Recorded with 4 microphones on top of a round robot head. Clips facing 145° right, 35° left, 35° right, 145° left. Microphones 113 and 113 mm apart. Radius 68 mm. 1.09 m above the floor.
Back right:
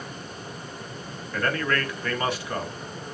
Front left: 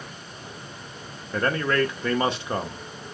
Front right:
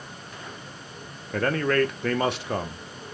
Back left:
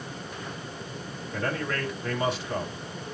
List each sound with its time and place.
1.3 s a man speaking: 30° right, 1.0 m